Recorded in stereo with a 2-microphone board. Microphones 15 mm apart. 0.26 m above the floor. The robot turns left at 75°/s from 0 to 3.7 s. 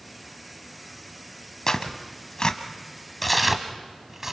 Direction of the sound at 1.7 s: 40° left (ahead or behind).